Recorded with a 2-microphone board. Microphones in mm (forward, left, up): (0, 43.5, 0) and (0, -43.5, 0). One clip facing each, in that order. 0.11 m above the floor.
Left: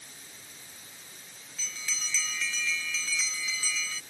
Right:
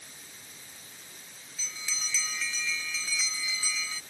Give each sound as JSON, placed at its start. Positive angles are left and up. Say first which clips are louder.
{"t": 1.6, "sound": "a bell", "louder": "left 1 dB", "side_deg": -10}